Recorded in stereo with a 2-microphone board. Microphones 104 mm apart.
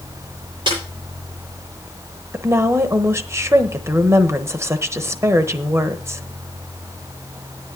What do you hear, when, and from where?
0.7 s a snare drum: 50° right (ahead or behind), 8 m
2.3 s a woman speaking: 25° right (ahead or behind), 1.0 m